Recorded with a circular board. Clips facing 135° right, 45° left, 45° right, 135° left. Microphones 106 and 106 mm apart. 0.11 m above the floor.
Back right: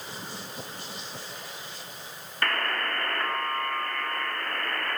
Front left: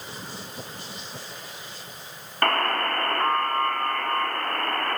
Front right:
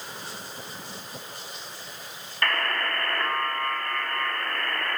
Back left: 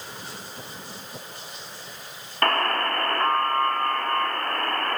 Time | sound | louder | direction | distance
2.4 | a buzzer | front left 6 dB, back left 5 dB | 90° left | 6.5 m